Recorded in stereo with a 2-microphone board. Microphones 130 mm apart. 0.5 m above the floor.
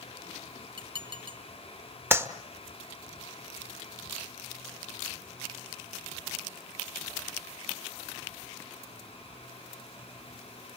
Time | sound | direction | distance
0.8 | dishes clattering | 35° right (ahead or behind) | 3.5 m
2.1 | a clap | 20° right (ahead or behind) | 1.4 m